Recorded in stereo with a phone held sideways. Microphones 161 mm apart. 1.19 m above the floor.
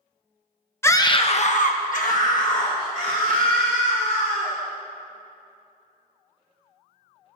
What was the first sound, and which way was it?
A scream, 15° left (ahead or behind).